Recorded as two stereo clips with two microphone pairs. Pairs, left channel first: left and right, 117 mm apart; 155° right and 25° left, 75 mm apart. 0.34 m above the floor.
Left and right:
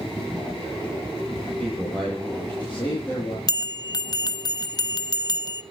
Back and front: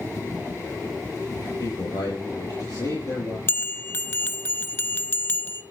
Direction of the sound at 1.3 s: 175° left.